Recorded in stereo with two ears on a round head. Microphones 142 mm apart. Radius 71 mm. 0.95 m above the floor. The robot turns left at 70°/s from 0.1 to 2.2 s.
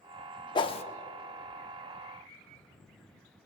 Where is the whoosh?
30° left (ahead or behind), 0.5 m; by 0.8 s 40° left (ahead or behind), 0.5 m.